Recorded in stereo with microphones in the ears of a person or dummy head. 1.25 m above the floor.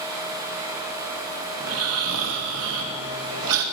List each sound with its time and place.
1.6 s snoring: 80° right, 2.0 m